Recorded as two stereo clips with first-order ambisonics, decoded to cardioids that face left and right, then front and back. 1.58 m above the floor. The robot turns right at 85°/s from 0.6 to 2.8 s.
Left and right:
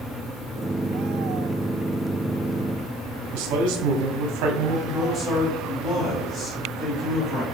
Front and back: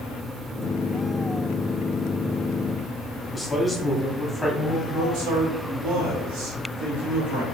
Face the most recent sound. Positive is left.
turn(degrees=160)